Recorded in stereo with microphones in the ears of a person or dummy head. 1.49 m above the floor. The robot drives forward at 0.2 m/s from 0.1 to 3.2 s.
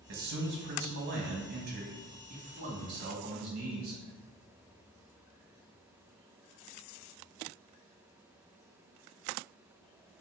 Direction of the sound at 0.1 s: 60° right (ahead or behind).